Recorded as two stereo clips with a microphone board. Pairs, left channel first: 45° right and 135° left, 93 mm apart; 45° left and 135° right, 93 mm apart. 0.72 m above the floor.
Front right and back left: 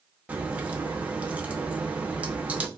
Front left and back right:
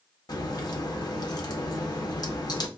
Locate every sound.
0.3 s a crack: 65° left, 0.6 m